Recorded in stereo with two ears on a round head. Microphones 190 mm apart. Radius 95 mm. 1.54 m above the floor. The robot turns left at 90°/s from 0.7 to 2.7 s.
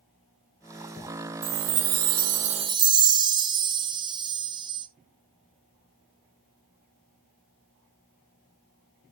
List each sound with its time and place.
1.4 s a chime: 35° right, 0.9 m; by 4.9 s 150° right, 0.9 m